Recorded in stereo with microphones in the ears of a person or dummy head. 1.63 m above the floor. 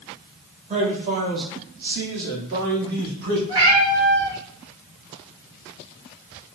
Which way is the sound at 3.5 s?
25° right (ahead or behind).